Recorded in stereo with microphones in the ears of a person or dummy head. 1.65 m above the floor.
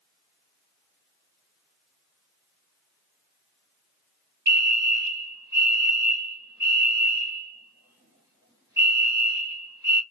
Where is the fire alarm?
20° right (ahead or behind), 2 m.